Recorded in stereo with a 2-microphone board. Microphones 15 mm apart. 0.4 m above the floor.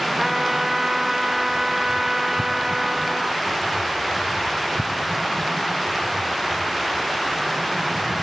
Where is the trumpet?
35° right (ahead or behind), 1.8 m.